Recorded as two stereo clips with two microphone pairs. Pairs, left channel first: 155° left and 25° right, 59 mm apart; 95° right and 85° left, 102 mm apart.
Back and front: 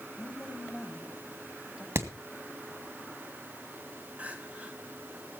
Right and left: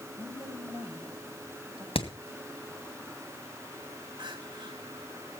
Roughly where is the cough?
I don't hear a cough.